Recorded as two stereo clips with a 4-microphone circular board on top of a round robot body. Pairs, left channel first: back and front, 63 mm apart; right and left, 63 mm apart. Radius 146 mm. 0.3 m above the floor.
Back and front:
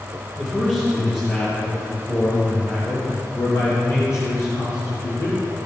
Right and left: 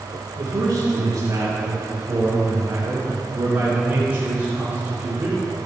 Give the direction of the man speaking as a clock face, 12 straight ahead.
8 o'clock.